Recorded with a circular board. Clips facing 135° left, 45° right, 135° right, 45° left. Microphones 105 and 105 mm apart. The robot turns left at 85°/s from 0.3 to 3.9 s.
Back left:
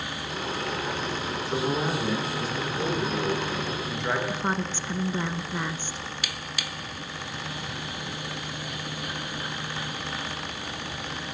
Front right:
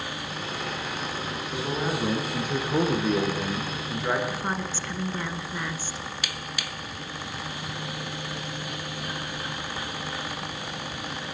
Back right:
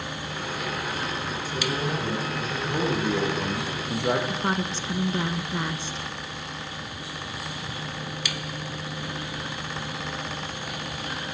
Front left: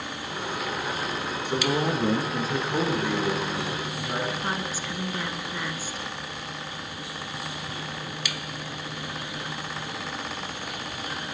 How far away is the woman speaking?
About 1.9 m.